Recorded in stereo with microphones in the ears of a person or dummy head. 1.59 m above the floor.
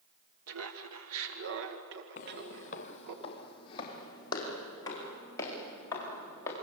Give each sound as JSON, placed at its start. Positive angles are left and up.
{"t": 0.5, "sound": "laughter", "side_deg": -85, "distance_m": 1.5}
{"t": 2.2, "sound": "footsteps", "side_deg": 45, "distance_m": 2.5}